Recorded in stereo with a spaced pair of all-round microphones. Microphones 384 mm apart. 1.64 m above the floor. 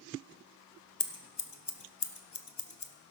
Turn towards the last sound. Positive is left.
turn(degrees=85)